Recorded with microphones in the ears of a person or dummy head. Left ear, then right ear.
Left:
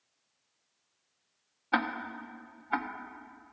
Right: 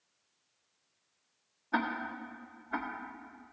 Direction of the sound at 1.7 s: 45° left (ahead or behind).